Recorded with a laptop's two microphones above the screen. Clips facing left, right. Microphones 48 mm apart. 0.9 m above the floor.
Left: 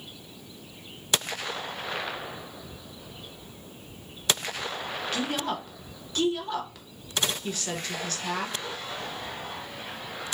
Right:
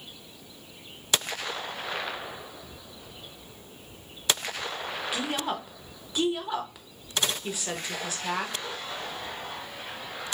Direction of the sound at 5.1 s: 10° right (ahead or behind).